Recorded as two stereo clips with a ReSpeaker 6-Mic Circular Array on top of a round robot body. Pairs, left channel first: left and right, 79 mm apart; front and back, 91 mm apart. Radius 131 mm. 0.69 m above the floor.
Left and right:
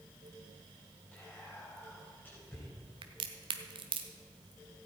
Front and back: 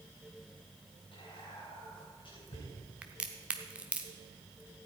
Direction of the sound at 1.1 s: 25° left.